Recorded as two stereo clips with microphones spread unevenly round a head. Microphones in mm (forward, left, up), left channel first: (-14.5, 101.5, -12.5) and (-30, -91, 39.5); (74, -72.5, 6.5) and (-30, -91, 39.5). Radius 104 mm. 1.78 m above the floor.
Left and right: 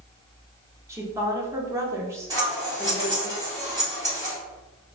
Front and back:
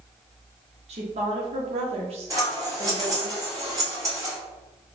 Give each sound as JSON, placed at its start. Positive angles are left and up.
{"t": 0.9, "sound": "a woman speaking", "azimuth_deg": -165, "distance_m": 0.9}
{"t": 2.3, "sound": "scissors", "azimuth_deg": -145, "distance_m": 1.6}